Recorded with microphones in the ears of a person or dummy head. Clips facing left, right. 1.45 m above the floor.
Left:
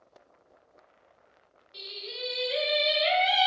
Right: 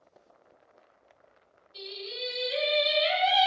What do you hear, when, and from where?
1.7 s singing: 35° left (ahead or behind), 1.0 m